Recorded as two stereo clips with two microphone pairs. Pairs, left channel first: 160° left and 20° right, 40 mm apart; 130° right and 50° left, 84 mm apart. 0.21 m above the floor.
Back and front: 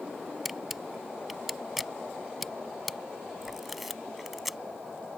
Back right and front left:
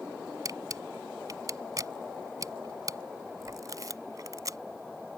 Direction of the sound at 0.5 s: 65° left.